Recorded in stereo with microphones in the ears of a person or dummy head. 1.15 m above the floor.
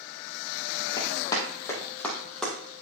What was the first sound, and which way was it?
Running footsteps, 25° left (ahead or behind).